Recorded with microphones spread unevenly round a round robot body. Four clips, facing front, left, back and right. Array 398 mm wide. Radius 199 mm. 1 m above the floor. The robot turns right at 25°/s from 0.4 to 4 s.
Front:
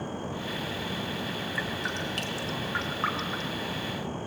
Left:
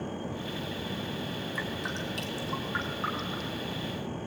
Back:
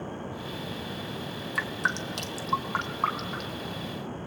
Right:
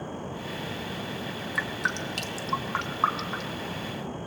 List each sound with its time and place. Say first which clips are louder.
1.6 s dripping: right 7 dB, back 6 dB; 145° right, 1.7 m; by 3.6 s 90° right, 1.7 m